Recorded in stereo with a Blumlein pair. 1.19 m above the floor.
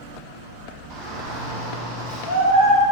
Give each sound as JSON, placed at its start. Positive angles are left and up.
{"t": 0.9, "sound": "a shout", "azimuth_deg": -35, "distance_m": 1.2}